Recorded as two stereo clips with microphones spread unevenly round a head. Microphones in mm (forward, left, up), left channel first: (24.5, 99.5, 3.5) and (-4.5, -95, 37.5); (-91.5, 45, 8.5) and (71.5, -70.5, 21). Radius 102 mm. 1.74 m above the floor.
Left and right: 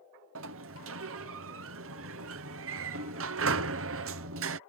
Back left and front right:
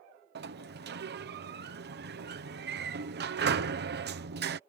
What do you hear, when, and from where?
0.3 s a sliding door: 75° right